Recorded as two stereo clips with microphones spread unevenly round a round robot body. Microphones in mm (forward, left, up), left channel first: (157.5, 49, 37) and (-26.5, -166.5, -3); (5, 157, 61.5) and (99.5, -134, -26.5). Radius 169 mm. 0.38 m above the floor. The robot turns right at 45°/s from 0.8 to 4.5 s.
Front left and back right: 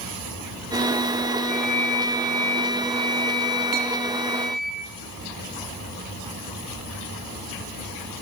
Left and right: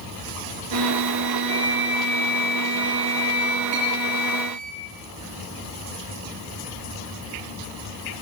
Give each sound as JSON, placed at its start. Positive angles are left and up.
{"t": 1.5, "sound": "a flute", "azimuth_deg": 20, "distance_m": 5.0}
{"t": 3.7, "sound": "a clink", "azimuth_deg": -140, "distance_m": 10.0}